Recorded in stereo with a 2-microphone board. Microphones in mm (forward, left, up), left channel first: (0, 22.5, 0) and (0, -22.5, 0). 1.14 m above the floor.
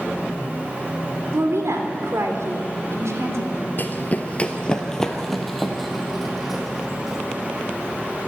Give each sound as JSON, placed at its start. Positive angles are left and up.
{"t": 1.3, "sound": "a woman speaking", "side_deg": -80, "distance_m": 3.5}
{"t": 3.8, "sound": "running footsteps", "side_deg": 40, "distance_m": 1.4}